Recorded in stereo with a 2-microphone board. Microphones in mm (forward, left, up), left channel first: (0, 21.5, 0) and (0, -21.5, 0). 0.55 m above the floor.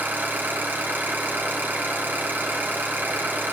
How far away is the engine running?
About 3.5 m.